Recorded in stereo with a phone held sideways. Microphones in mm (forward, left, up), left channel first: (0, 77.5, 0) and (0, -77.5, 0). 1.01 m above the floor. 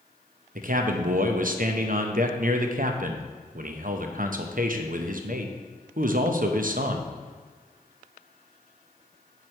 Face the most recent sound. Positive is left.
turn(degrees=-60)  # may be behind; listen again after turning